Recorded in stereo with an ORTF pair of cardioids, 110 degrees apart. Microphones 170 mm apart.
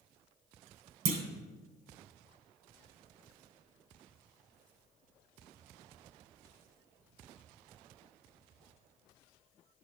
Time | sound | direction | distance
1.1 | a clunk | 60° right | 1.2 m